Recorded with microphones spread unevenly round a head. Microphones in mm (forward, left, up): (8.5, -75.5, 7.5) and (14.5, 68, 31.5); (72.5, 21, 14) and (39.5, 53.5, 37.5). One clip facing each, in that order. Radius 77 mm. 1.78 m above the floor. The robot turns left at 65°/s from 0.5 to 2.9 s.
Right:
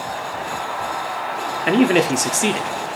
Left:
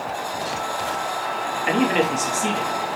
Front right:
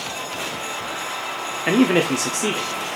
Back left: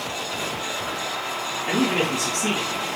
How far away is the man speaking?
About 0.5 m.